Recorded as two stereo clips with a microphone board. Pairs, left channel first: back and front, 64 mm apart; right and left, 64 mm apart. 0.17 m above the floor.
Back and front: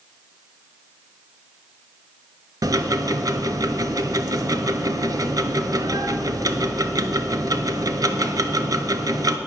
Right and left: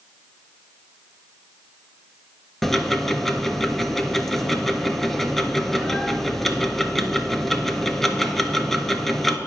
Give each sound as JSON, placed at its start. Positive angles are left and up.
{"t": 2.6, "sound": "ticking", "azimuth_deg": -5, "distance_m": 0.5}